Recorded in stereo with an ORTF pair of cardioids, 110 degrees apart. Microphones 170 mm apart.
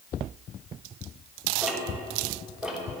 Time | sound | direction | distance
1.6 | ticking | 5° right | 4.5 m